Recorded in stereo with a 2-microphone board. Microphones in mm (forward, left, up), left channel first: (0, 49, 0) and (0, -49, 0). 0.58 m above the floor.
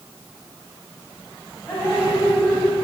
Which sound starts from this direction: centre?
Dripping, at 1.7 s.